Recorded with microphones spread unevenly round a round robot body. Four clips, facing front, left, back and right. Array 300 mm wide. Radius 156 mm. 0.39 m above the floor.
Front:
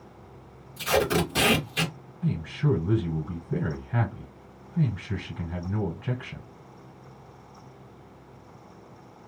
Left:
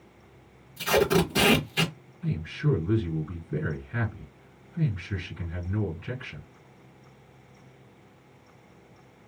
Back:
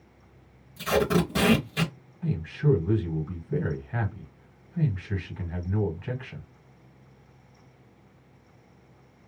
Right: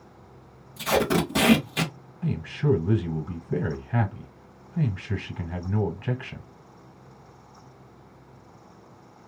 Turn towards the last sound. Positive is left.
turn(degrees=-85)